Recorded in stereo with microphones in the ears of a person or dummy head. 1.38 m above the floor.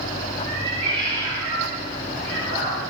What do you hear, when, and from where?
0.5 s a cat meowing: 40° right (ahead or behind), 5 m; by 2.8 s 50° right (ahead or behind), 4 m